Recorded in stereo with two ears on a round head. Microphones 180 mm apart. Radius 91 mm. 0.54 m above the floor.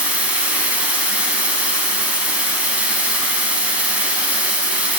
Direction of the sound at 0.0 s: 5° right (ahead or behind).